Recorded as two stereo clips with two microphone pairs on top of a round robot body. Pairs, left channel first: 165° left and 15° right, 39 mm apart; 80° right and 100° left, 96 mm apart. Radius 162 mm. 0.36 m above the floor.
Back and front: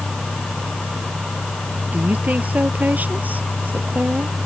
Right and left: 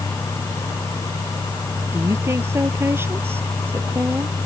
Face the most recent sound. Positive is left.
turn(degrees=30)